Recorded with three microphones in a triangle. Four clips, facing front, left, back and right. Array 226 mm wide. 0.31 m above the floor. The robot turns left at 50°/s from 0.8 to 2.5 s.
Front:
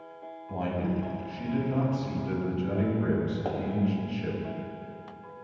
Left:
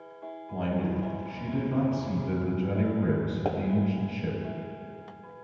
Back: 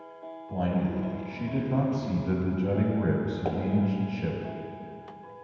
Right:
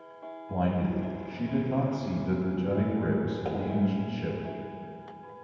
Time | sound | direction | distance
0.5 | a man speaking | 80° right | 1.8 m
3.5 | a pop | 95° left | 1.6 m